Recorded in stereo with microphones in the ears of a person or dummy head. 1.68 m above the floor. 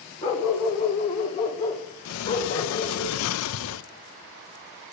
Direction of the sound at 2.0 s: 80° left.